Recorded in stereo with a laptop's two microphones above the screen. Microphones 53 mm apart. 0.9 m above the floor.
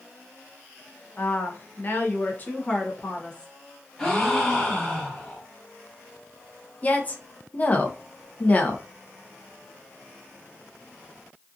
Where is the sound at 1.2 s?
35° left (ahead or behind), 0.7 m; by 3.5 s 15° left (ahead or behind), 0.9 m.